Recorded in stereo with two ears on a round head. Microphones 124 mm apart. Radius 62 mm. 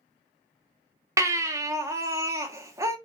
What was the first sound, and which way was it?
A baby crying, 20° right (ahead or behind).